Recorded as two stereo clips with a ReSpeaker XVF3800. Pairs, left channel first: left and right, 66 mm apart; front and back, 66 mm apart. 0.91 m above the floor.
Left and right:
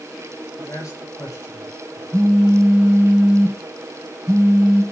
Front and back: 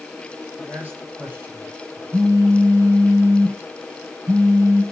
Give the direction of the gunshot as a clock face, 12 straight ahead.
I don't hear a gunshot.